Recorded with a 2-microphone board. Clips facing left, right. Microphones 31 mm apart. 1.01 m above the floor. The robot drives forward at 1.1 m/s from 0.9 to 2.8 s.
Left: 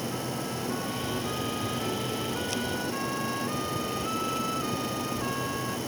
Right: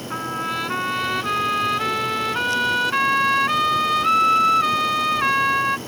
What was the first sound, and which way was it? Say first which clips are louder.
A trumpet: right 8 dB; 80° right.